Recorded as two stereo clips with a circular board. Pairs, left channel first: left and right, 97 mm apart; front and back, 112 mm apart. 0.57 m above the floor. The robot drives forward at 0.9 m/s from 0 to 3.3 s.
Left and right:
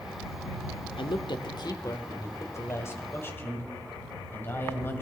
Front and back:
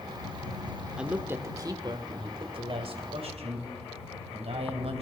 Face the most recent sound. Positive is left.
turn(degrees=155)